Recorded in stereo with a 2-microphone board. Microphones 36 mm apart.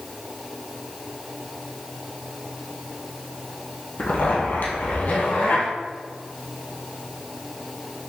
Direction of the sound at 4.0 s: 65° left (ahead or behind).